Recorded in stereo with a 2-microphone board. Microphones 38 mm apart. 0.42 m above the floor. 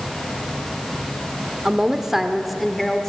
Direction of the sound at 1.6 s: 20° right (ahead or behind).